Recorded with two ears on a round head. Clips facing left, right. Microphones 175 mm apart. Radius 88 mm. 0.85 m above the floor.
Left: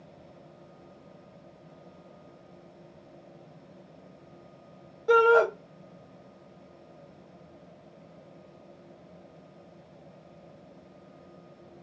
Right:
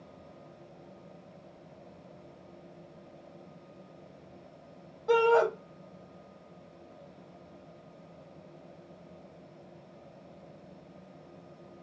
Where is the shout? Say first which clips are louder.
Left 3 dB; 15° left (ahead or behind), 1.8 m.